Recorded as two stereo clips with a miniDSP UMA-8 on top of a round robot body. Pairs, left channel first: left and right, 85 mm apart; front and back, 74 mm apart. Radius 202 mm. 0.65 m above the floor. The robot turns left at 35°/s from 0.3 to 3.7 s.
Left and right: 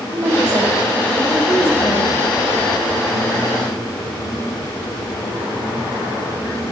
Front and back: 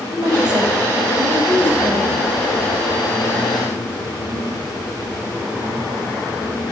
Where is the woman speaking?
160° right, 4.5 m; by 2.2 s 135° left, 4.5 m.